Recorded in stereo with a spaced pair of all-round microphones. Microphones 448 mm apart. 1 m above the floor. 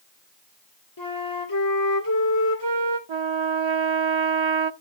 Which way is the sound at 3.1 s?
85° right.